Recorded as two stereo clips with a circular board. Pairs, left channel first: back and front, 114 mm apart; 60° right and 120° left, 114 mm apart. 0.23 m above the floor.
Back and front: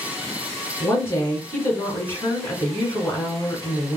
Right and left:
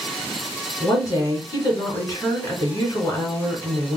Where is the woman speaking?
115° right, 2.5 m.